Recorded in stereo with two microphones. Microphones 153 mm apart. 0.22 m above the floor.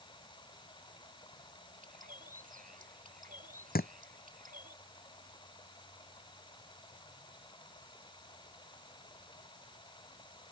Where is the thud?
85° left.